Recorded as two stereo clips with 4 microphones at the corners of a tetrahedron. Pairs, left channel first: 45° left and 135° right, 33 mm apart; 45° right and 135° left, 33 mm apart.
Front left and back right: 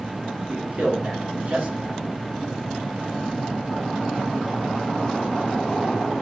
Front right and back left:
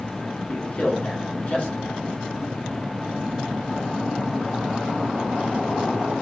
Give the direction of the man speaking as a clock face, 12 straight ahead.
3 o'clock.